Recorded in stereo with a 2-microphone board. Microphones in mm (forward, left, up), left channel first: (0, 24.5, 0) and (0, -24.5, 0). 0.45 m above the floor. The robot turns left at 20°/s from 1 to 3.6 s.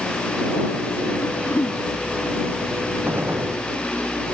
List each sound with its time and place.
1.2 s throat clearing: 80° left; by 1.8 s 85° left
3.1 s a gunshot: 50° right (ahead or behind); by 3.6 s 40° right (ahead or behind)